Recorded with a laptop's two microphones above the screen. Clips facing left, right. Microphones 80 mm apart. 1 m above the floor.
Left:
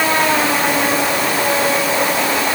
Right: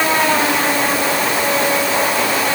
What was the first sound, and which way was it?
Only background noise.